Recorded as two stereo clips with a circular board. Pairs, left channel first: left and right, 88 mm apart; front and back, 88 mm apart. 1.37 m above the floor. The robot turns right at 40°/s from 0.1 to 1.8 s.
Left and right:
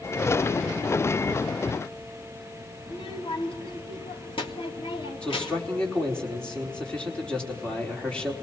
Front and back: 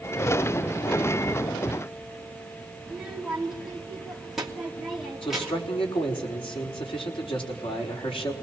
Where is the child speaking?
90° left, 2.5 m.